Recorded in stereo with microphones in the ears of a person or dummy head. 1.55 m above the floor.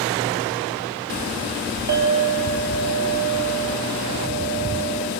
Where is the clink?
55° right (ahead or behind), 3 m.